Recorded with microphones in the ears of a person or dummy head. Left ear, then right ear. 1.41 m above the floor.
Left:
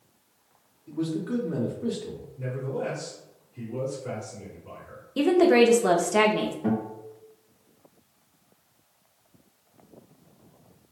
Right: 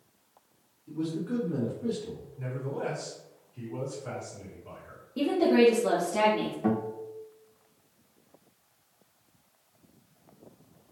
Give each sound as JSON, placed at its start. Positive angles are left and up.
{"t": 0.9, "sound": "a man speaking", "side_deg": 20, "distance_m": 0.8}
{"t": 2.4, "sound": "a man speaking", "side_deg": -20, "distance_m": 1.7}
{"t": 5.2, "sound": "a woman speaking", "side_deg": 55, "distance_m": 0.6}
{"t": 6.6, "sound": "a guitar", "side_deg": -45, "distance_m": 1.3}